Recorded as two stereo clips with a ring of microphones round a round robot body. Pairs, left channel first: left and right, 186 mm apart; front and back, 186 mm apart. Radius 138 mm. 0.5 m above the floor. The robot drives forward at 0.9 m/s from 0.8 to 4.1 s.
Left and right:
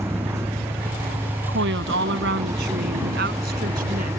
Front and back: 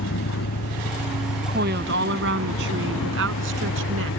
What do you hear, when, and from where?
0.0 s a vehicle: 15° right
1.5 s a woman speaking: 130° right; by 4.1 s 150° right